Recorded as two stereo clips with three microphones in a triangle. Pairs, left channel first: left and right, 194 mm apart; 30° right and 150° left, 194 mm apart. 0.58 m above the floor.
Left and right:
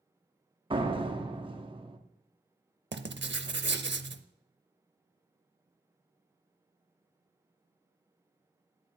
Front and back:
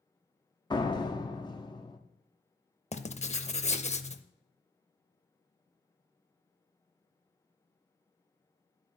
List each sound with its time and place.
0.7 s a door slam: 70° right, 0.7 m
2.9 s writing: 85° right, 0.6 m